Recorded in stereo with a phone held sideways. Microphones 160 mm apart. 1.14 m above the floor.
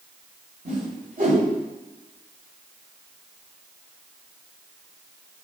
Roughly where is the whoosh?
Right.